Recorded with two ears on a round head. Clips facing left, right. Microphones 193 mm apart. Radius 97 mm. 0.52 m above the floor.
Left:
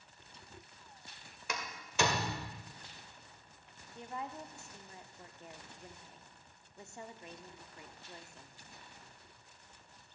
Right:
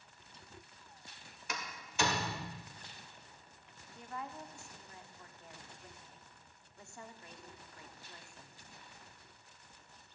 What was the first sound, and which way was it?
A door slam, 65° left (ahead or behind).